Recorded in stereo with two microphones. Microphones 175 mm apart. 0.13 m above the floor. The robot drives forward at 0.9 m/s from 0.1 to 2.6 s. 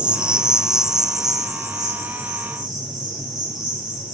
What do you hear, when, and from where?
0.0 s an insect: 5° right (ahead or behind), 0.7 m; by 4.2 s centre (ahead or behind), 3 m